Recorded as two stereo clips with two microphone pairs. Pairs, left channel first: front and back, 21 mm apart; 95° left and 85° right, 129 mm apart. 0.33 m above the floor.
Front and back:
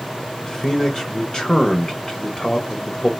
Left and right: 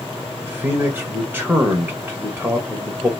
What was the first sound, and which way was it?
A man speaking, 25° right.